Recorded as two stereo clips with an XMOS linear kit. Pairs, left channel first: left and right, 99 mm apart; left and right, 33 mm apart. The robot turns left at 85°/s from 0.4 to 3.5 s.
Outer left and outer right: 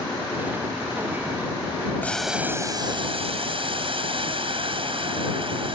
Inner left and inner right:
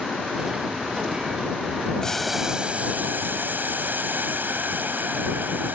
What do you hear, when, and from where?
2.0 s boiling: 20° left; by 5.8 s 110° right